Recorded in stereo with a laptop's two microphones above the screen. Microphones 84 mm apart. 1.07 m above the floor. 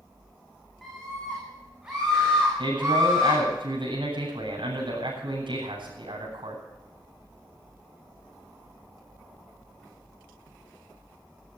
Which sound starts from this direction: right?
A man speaking, at 2.6 s.